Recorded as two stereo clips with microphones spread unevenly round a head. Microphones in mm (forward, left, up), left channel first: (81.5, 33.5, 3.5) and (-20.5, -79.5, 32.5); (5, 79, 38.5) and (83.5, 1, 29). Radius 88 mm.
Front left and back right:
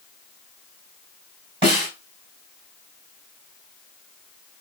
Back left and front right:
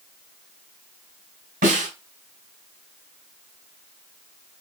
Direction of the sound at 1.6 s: 80° right.